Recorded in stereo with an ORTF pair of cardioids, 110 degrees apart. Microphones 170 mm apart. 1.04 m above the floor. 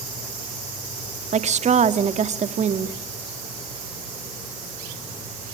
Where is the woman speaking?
45° right, 1.8 m.